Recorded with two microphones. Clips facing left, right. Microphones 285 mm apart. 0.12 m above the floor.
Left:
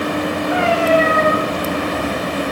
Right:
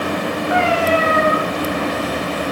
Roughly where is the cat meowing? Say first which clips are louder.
Left 2 dB; left.